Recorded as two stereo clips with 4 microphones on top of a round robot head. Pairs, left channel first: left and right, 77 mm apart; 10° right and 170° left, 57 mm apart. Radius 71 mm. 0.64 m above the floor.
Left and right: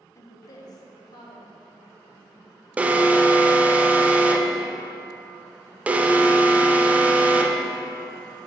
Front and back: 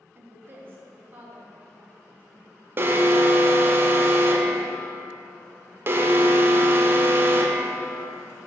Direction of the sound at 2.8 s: 160° right.